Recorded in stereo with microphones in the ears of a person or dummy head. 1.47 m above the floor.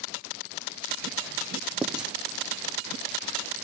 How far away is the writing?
About 0.6 m.